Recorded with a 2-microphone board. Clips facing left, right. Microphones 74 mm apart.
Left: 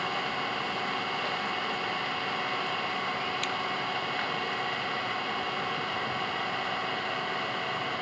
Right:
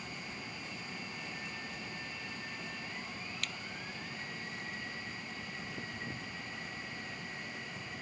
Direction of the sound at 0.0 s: 75° left (ahead or behind).